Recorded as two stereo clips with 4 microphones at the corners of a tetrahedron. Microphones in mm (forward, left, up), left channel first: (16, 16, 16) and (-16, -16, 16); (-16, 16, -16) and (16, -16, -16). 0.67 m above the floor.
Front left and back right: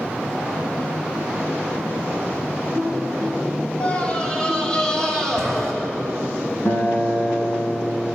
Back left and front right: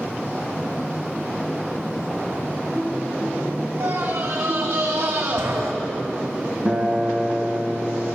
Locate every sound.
3.8 s a scream: 20° right, 4.5 m; by 5.7 s 35° right, 4.5 m
6.7 s a guitar: 10° left, 3 m